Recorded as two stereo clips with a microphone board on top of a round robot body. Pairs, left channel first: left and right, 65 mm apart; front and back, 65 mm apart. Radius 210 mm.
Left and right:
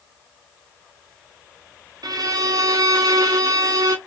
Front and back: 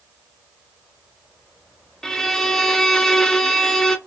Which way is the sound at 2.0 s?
85° right.